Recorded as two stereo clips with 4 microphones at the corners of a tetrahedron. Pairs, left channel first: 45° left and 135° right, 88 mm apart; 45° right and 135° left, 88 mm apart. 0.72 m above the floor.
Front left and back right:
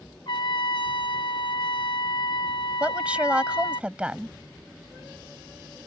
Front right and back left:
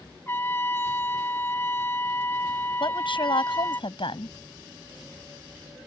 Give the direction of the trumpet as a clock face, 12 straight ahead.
11 o'clock.